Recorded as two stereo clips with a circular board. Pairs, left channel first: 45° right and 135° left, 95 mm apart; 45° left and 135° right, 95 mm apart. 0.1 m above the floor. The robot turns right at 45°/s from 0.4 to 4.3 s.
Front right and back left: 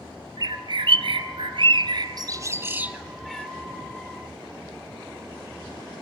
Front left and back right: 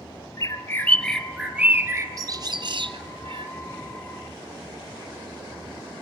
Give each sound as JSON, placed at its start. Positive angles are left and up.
{"t": 0.4, "sound": "a bird", "azimuth_deg": 95, "distance_m": 0.8}